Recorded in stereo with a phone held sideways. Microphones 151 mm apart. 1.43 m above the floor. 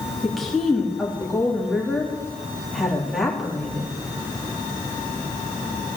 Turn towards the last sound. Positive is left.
turn(degrees=0)  # may be behind; listen again after turning